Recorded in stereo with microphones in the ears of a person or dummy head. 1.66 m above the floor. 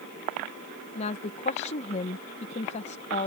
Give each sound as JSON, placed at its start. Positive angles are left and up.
{"t": 0.9, "sound": "a woman speaking", "side_deg": 45}